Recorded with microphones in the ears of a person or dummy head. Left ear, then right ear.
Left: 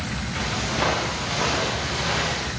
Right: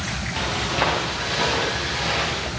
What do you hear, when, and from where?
0.4 s footsteps: 35° right (ahead or behind), 5.5 m; by 2.5 s 25° right (ahead or behind), 6.5 m